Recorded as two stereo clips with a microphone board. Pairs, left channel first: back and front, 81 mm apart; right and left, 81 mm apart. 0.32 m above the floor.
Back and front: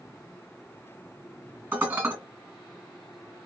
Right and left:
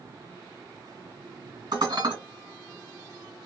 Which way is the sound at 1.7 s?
60° left.